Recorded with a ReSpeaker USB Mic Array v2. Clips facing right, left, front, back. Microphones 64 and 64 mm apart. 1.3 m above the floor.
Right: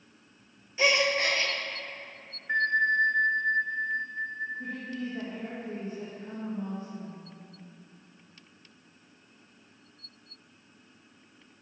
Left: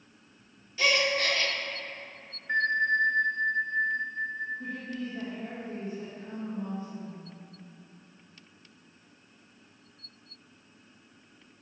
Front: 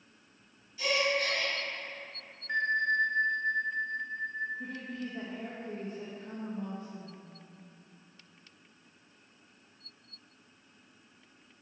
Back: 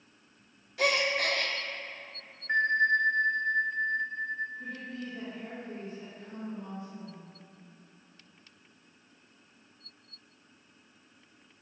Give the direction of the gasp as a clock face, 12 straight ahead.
5 o'clock.